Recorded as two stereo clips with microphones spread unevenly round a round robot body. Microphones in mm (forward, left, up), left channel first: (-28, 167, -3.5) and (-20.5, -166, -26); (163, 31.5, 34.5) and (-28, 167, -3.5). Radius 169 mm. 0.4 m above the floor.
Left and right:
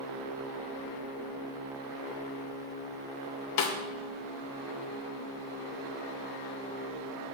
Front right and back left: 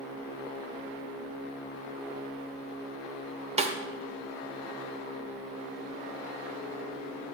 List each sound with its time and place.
3.6 s a snare drum: 105° left, 0.7 m